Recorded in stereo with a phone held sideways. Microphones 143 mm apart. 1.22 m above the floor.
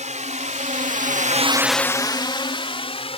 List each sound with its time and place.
0.0 s a drone: 60° right (ahead or behind); by 3.2 s 45° left (ahead or behind)